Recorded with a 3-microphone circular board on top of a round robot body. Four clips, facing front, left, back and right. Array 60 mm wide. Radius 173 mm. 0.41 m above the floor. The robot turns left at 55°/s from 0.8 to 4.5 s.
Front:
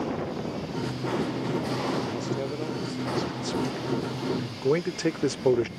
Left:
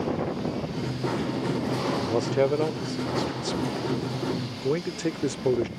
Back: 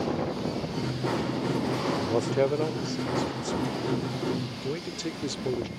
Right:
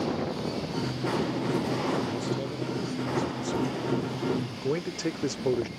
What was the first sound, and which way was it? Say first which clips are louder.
A man speaking: left 7 dB, back 5 dB; 145° left.